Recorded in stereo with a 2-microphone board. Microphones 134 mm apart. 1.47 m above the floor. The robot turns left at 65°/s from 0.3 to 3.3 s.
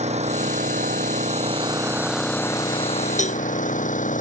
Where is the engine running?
55° right; by 4.2 s 110° left.